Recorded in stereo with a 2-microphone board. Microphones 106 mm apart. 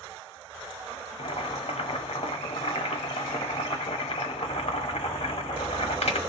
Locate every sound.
1.2 s boiling: 75° left (ahead or behind), 0.8 m